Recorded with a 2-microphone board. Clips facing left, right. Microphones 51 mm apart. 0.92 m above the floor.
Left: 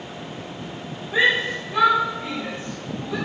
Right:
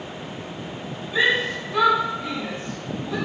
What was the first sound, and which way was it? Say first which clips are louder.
A shout: left 1 dB; 80° left.